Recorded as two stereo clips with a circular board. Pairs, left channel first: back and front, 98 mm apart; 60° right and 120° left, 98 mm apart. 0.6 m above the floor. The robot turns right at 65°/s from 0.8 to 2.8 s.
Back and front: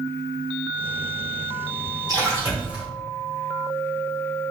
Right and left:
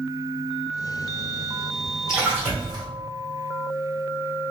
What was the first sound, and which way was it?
A splash, 35° left.